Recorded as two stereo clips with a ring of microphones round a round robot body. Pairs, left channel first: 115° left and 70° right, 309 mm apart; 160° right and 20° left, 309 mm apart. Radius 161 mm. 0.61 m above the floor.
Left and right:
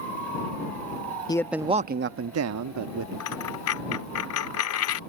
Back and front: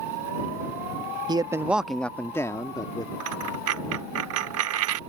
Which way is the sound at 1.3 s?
70° left.